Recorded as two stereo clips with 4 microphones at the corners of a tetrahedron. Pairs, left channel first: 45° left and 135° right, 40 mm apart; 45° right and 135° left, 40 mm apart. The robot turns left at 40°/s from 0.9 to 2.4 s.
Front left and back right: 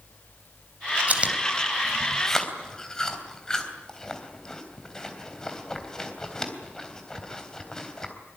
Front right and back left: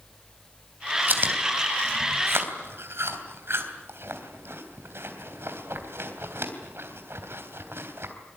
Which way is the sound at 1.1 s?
175° left.